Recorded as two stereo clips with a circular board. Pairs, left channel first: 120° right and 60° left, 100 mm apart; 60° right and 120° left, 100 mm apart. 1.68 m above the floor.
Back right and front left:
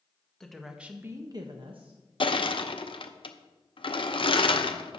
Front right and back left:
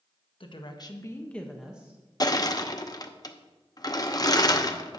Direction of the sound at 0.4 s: 35° right.